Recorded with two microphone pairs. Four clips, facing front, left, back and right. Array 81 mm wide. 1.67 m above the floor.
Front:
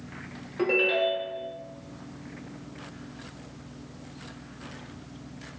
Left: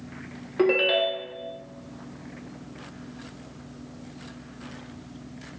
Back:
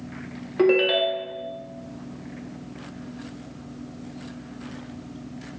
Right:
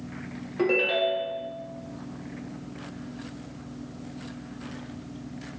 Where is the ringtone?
145° left, 0.6 m.